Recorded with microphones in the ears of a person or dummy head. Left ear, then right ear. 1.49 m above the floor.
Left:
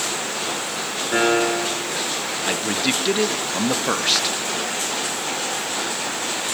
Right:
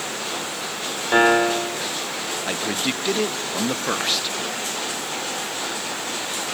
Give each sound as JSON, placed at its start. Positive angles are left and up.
{"t": 1.1, "sound": "a piano", "side_deg": -25, "distance_m": 1.3}
{"t": 2.5, "sound": "a man speaking", "side_deg": 0, "distance_m": 0.9}